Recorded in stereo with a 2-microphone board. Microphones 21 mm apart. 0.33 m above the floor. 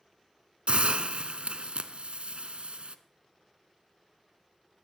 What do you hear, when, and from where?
0.7 s a hiss: 70° right (ahead or behind), 0.7 m